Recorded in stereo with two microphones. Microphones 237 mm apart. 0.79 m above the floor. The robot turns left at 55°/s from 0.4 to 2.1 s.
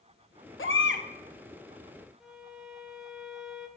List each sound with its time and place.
0.6 s a baby crying: 60° left (ahead or behind), 0.8 m; by 1.1 s 45° left (ahead or behind), 0.8 m
2.2 s a violin: 5° right (ahead or behind), 0.6 m